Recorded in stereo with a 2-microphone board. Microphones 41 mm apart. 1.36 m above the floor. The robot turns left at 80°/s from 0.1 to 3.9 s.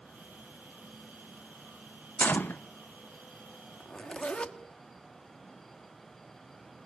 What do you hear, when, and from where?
2.2 s a gunshot: 120° left, 0.7 m; by 2.6 s 85° left, 0.7 m
3.8 s a zipper: 30° left (ahead or behind), 1.3 m; by 4.6 s 25° left (ahead or behind), 1.3 m